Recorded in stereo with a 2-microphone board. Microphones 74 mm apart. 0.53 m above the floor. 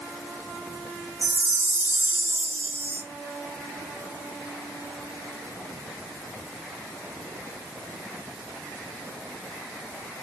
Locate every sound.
1.2 s a chime: 25° right (ahead or behind), 0.9 m